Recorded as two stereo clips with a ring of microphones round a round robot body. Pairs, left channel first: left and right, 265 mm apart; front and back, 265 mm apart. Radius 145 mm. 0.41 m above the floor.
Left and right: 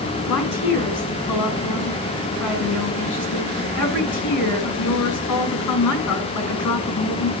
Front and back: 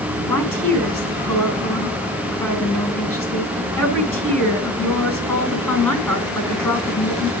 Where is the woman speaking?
80° left, 5.5 m.